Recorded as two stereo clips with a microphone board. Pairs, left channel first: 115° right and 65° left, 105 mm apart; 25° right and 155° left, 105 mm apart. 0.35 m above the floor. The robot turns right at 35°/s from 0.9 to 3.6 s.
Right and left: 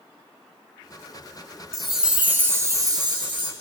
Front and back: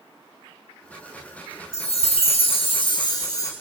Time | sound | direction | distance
1.7 | a chime | 25° right | 2 m